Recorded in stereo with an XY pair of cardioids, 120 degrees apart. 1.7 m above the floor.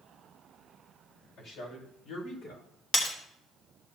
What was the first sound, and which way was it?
A man speaking, 70° left.